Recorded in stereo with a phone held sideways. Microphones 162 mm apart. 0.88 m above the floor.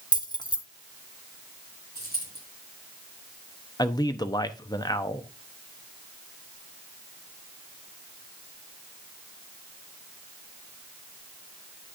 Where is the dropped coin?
70° left (ahead or behind), 4.5 m.